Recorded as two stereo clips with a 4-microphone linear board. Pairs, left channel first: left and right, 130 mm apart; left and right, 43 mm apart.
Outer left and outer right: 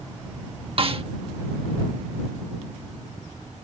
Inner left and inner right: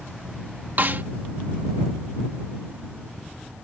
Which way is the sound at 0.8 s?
45° right (ahead or behind).